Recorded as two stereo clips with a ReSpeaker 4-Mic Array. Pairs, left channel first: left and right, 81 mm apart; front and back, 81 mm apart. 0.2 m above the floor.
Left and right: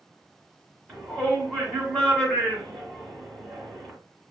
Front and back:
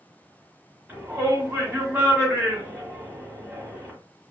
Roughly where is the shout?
Behind left.